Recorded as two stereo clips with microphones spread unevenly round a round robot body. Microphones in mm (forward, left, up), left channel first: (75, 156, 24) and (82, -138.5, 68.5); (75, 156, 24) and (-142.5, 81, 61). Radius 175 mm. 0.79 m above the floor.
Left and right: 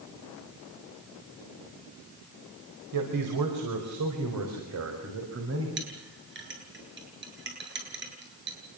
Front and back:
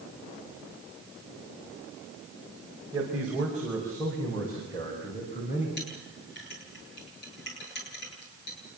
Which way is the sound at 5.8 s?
40° right.